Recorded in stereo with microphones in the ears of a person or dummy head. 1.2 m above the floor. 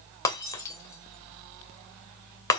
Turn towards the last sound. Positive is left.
turn(degrees=20)  # may be behind; listen again after turning